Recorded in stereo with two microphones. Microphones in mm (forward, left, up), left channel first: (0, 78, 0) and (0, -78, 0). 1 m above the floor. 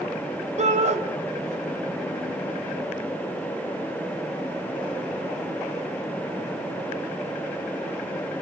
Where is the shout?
50° right (ahead or behind), 4 m.